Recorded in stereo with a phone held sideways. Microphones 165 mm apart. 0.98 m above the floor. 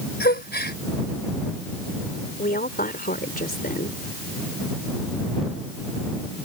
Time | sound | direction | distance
0.2 | a gasp | 85° left | ?
2.4 | a woman speaking | 65° left (ahead or behind) | ?